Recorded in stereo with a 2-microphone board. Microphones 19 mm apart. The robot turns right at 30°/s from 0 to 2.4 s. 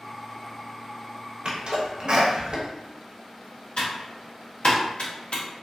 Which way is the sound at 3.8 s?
65° left (ahead or behind).